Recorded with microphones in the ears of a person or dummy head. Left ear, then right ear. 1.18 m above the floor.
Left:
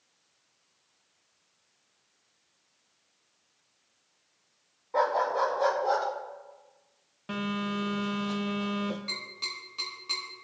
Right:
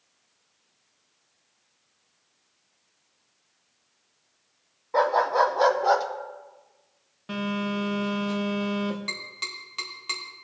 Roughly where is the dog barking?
Centre.